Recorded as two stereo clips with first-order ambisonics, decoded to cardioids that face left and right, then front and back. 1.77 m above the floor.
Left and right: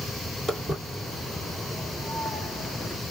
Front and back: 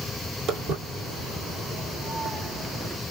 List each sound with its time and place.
0.5 s footsteps: 160° right, 2.5 m; by 3.0 s 165° right, 1.8 m